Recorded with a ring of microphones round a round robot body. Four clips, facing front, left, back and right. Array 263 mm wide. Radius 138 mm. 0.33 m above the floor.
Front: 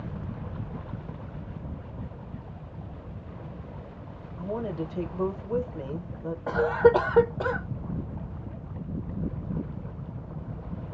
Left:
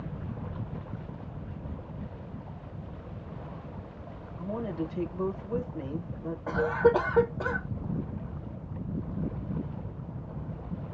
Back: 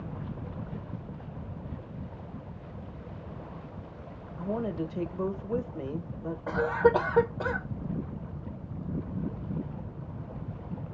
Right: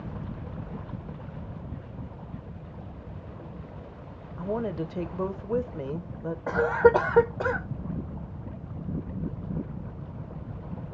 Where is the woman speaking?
90° right, 1.2 m.